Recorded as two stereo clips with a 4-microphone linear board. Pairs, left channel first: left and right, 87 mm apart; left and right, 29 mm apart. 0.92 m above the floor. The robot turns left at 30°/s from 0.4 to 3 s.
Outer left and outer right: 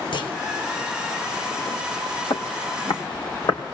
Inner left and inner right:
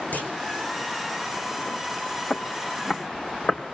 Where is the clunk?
65° left (ahead or behind), 4.5 m.